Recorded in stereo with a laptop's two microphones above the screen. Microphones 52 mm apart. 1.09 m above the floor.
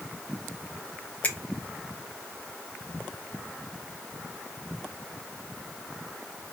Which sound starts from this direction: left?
A finger snap, at 1.2 s.